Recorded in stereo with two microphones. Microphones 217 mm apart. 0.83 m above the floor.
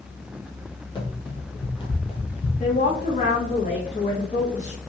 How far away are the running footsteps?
About 1.4 m.